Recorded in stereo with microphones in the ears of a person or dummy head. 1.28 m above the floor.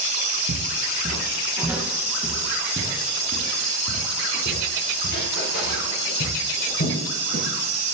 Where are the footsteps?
50° right (ahead or behind), 2.5 m; by 7.5 s 60° left (ahead or behind), 9 m.